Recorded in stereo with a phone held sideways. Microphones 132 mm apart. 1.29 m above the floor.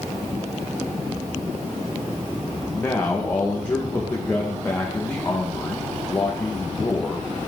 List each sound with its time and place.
2.7 s a man speaking: 20° left (ahead or behind), 1.3 m